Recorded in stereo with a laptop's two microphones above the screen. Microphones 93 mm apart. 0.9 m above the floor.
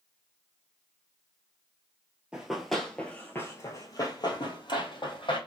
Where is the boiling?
I don't hear boiling.